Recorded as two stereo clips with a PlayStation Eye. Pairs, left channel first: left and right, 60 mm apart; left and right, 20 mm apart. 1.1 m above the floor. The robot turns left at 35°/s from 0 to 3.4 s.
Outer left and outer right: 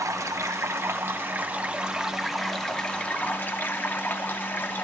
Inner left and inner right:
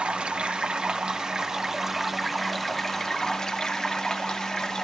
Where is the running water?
95° right, 0.7 m; by 4.8 s 145° left, 0.7 m.